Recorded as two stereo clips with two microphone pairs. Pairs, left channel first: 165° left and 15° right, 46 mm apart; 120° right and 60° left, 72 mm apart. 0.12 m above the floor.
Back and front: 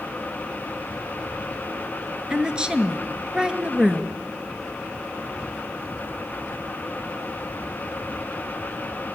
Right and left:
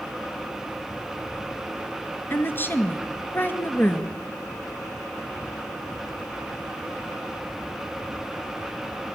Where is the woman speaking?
75° right, 2 m.